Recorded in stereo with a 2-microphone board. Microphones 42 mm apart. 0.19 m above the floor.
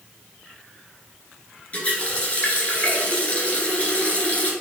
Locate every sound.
1.7 s a running tap: 25° left (ahead or behind), 2 m